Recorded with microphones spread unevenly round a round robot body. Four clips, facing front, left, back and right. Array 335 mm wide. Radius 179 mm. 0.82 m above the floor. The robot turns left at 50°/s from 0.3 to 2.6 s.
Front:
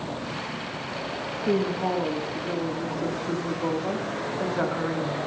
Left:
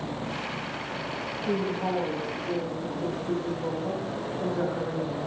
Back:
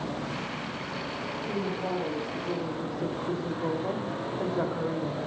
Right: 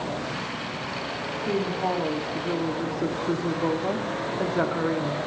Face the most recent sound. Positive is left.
turn(degrees=-65)